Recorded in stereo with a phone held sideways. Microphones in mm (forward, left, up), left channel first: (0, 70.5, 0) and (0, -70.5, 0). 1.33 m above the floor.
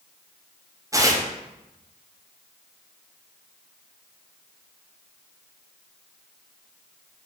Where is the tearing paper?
25° right (ahead or behind), 0.5 m.